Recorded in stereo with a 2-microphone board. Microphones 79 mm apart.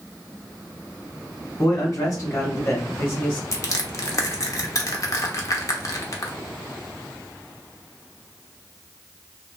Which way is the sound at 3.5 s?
45° left (ahead or behind).